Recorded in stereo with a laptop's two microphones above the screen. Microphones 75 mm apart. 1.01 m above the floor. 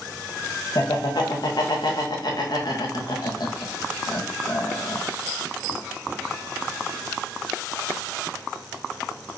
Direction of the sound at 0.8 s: 65° left (ahead or behind).